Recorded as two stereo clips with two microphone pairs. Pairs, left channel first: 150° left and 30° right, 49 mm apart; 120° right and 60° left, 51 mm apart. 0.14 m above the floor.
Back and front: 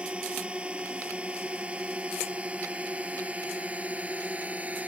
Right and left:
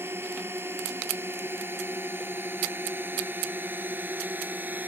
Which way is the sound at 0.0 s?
35° left.